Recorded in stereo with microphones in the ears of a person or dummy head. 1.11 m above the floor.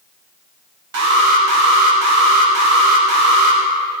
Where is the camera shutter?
I don't hear a camera shutter.